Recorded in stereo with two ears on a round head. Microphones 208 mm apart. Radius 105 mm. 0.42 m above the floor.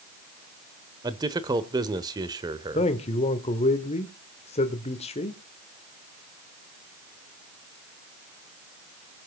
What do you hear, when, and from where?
1.0 s a man speaking: 15° right (ahead or behind), 1.1 m
2.8 s a man speaking: 25° left (ahead or behind), 1.3 m